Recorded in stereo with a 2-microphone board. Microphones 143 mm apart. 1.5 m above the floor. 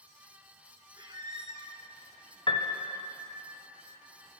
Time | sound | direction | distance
1.0 | a squeak | 30° right (ahead or behind) | 0.8 m
2.5 | a piano | 35° left (ahead or behind) | 0.7 m